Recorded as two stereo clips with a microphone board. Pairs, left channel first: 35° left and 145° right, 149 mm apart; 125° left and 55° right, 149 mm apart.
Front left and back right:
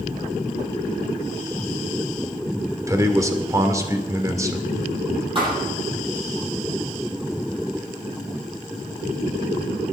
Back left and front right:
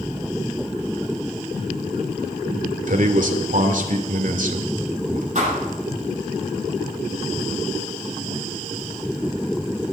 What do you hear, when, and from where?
2.9 s a man speaking: 80° right, 2 m
5.3 s a thud: 90° right, 9 m